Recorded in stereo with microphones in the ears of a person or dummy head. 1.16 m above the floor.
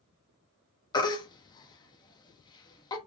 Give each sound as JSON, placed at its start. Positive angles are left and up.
{"t": 0.9, "sound": "a baby crying", "side_deg": 25, "distance_m": 1.3}